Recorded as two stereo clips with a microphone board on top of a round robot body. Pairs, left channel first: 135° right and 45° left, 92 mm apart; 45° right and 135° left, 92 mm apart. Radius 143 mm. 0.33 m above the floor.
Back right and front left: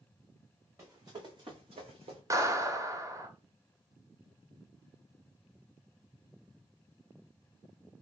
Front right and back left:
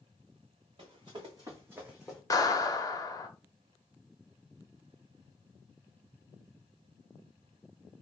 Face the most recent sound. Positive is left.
turn(degrees=0)